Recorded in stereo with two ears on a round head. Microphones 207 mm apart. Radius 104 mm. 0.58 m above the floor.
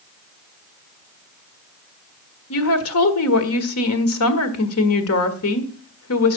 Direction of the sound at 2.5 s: 65° left (ahead or behind).